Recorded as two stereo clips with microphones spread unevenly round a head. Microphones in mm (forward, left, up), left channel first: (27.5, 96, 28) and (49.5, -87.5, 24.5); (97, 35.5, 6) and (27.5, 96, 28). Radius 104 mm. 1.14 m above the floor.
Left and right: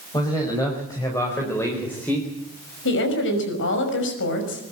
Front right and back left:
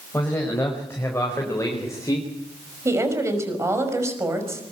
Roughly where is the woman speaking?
Left.